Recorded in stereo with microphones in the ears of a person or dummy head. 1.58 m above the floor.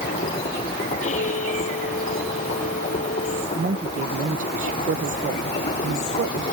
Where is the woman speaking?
40° right (ahead or behind).